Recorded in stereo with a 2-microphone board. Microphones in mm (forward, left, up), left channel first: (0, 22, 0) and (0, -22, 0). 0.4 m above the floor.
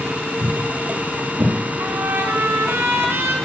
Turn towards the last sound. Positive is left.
turn(degrees=-65)  # may be behind; listen again after turning